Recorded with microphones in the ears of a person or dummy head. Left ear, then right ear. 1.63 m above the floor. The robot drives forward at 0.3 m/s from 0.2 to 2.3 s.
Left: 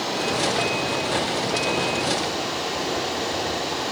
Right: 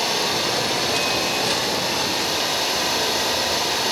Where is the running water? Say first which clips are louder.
Right 2 dB; 75° right (ahead or behind), 9.5 m.